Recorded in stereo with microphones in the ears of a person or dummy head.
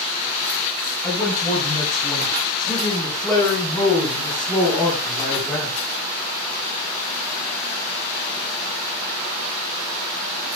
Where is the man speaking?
10° left (ahead or behind), 7.5 m; by 5.8 s centre (ahead or behind), 4 m.